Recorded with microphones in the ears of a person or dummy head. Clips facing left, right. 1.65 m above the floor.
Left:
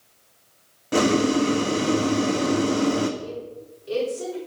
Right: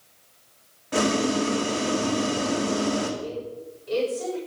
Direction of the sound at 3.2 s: 50° left (ahead or behind).